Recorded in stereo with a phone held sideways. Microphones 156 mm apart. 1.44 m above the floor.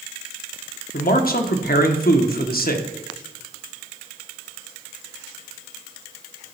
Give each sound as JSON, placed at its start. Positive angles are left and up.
{"t": 0.9, "sound": "a man speaking", "side_deg": 70, "distance_m": 1.0}